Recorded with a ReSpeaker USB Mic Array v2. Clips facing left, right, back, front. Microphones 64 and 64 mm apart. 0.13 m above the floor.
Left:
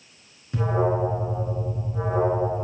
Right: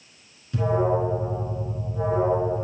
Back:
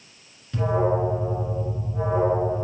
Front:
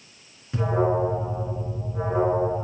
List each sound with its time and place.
0.5 s an alarm: 55° left, 1.8 m